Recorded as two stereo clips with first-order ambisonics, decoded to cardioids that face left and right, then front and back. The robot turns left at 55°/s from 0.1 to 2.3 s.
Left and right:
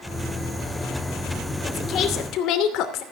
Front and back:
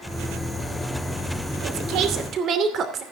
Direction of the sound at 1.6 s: 160° left.